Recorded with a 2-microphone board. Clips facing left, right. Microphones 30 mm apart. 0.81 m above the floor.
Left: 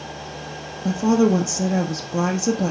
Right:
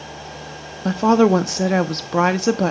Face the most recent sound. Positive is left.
turn(degrees=-50)  # may be behind; listen again after turning